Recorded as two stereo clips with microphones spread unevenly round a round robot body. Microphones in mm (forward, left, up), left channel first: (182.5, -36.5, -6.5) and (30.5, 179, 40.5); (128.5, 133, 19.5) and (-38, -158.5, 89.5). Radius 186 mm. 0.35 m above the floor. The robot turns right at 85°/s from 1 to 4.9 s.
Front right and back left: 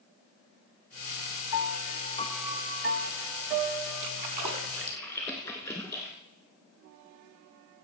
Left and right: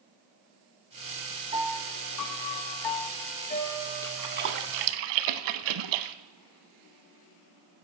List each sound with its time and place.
1.5 s a piano: 40° right, 0.5 m; by 4.6 s 140° right, 0.5 m
4.0 s a splash: 145° left, 0.7 m; by 6.2 s 140° right, 0.7 m